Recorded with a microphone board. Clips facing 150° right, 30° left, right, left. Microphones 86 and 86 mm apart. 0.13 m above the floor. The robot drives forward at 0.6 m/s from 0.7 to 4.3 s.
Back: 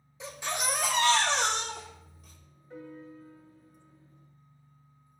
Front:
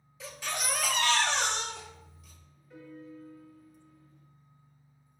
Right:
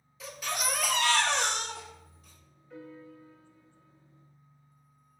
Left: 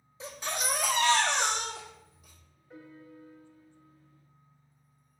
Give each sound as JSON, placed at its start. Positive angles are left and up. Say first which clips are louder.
{"t": 0.2, "sound": "a baby crying", "louder": "back 3 dB, right 1 dB", "azimuth_deg": 145, "distance_m": 0.7}
{"t": 2.7, "sound": "a piano", "louder": "back 2 dB, right 3 dB", "azimuth_deg": 155, "distance_m": 1.8}